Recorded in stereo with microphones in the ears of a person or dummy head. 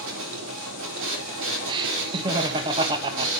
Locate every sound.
0.0 s a machine running: 65° right (ahead or behind), 4 m
1.7 s laughter: 25° right (ahead or behind), 1.3 m